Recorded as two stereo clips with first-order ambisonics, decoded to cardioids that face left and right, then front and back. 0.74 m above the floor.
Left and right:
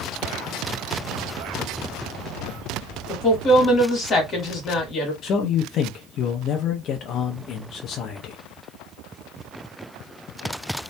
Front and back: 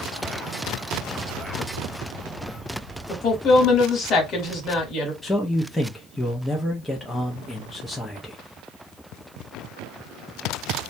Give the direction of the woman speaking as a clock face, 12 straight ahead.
11 o'clock.